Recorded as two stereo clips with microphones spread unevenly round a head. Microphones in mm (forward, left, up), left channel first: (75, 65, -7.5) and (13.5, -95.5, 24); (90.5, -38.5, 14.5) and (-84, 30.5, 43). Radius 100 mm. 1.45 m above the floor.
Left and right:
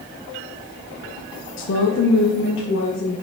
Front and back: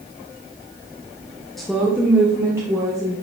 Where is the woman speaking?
65° left, 0.8 m; by 3.1 s 85° left, 2 m.